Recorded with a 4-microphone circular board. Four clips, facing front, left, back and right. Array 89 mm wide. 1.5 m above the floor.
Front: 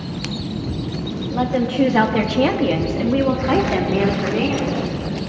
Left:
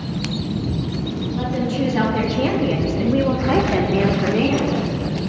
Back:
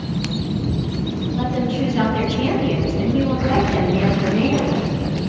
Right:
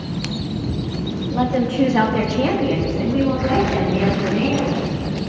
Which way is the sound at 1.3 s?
40° right.